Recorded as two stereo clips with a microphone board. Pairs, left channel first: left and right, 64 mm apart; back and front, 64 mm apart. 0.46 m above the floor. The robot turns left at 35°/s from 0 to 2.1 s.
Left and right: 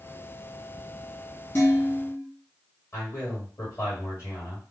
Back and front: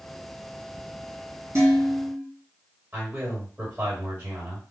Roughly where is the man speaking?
Ahead left.